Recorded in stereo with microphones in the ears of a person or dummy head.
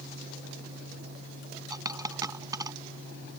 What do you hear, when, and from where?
1.7 s a dropped coin: 15° right (ahead or behind)